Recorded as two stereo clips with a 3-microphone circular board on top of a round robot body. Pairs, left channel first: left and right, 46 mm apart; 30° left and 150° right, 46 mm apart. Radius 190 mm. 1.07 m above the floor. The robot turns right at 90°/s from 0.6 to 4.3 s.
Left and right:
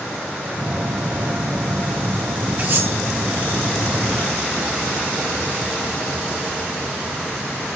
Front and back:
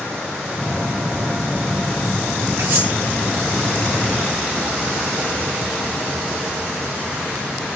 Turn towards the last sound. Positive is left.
turn(degrees=35)